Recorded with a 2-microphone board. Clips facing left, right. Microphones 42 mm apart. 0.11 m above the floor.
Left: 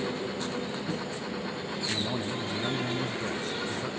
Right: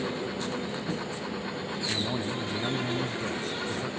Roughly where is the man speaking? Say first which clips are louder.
Right 1 dB; centre.